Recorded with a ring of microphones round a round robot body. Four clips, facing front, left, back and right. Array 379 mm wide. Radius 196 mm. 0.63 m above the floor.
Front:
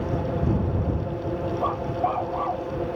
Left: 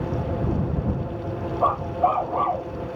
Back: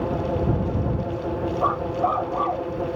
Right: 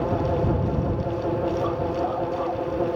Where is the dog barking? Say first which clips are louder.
Left 3 dB, back 4 dB; 105° left; by 2.7 s 115° left.